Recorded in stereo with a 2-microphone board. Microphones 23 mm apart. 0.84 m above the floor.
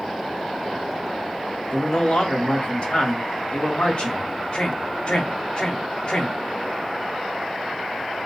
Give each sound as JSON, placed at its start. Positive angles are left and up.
{"t": 1.7, "sound": "a man speaking", "side_deg": 55, "distance_m": 1.3}